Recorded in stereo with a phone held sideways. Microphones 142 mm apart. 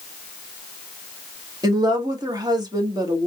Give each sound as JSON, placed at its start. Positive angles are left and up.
{"t": 1.6, "sound": "a woman speaking", "side_deg": -30, "distance_m": 1.6}